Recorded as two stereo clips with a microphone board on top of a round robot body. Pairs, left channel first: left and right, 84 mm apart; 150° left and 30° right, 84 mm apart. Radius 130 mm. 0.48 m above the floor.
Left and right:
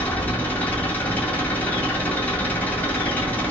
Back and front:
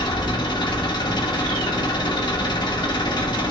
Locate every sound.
0.0 s an engine running: 155° left, 1.5 m